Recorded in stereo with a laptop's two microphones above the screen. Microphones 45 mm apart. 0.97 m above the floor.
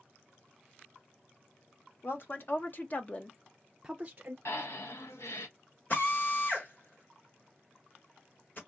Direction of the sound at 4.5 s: 75° left (ahead or behind).